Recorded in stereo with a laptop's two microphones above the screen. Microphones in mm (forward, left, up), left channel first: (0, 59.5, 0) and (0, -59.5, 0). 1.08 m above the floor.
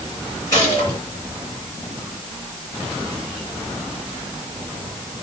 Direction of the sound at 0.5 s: 35° left (ahead or behind).